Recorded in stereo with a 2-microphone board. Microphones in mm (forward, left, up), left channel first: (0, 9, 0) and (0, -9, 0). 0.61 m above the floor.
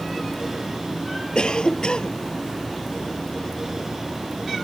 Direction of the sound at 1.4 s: 60° left (ahead or behind).